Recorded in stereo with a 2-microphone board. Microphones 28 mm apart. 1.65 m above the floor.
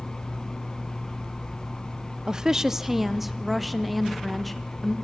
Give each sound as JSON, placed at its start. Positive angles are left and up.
{"t": 2.3, "sound": "a woman speaking", "side_deg": -25, "distance_m": 0.6}